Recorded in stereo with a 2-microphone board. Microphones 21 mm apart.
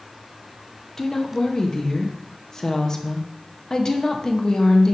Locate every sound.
1.0 s a woman speaking: 20° left (ahead or behind), 0.5 m